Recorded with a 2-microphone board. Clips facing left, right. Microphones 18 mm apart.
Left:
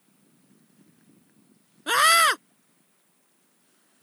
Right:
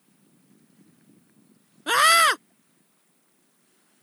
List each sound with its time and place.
1.9 s a scream: centre (ahead or behind)